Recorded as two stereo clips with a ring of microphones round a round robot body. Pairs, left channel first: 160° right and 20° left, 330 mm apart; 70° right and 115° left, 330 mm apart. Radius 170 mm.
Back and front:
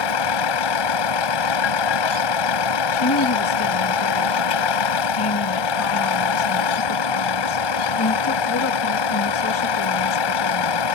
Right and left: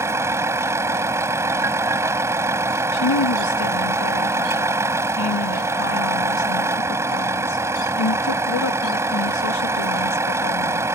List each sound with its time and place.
0.0 s a vehicle: 165° right
2.9 s a woman speaking: 110° right